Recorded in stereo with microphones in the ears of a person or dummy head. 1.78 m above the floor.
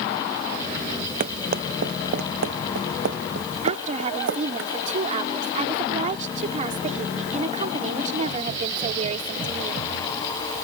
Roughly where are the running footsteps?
Right.